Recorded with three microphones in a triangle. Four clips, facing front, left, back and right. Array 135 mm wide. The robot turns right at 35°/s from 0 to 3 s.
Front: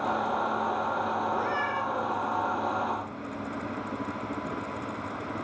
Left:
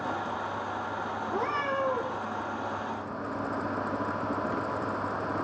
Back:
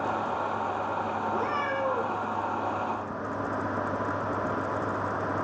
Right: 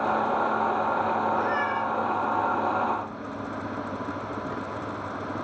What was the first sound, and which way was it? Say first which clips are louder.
A cat meowing: right 4 dB, even; 85° left.